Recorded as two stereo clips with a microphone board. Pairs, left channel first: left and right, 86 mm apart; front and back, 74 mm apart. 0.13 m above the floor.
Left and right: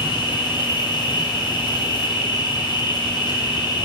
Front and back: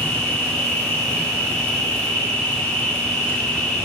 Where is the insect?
75° left, 1.5 m.